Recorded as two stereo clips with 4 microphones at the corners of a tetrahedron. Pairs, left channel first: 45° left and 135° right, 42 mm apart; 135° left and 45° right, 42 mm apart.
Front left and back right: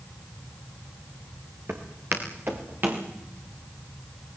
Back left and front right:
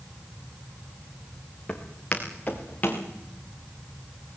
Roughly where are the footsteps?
Behind.